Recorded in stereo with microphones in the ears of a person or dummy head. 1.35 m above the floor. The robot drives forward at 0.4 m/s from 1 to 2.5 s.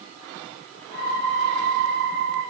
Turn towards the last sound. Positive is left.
No sound to turn to.